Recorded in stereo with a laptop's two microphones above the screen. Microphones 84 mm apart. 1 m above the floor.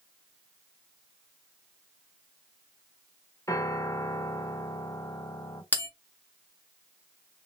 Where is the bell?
20° left (ahead or behind), 0.9 m.